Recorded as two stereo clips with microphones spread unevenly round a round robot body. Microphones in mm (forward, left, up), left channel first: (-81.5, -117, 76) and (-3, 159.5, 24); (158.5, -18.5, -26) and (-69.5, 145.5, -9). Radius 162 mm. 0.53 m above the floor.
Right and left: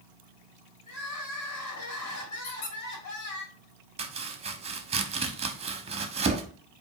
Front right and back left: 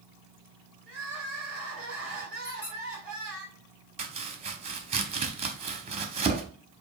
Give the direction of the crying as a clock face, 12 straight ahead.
4 o'clock.